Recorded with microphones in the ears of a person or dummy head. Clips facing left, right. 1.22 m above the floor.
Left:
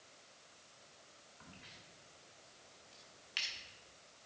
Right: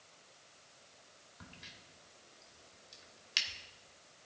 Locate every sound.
1.4 s a crack: 65° right (ahead or behind), 2 m